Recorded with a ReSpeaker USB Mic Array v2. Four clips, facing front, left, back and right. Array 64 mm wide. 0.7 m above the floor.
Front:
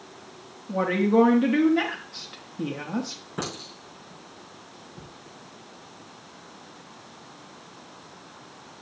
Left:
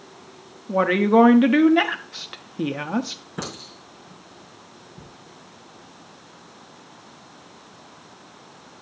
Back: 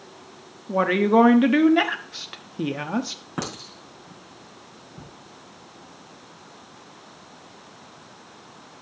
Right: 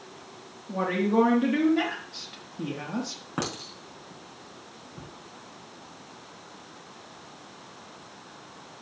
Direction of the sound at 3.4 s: 130° right.